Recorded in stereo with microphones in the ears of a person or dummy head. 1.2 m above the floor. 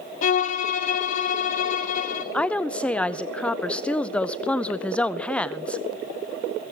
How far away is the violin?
About 1.1 m.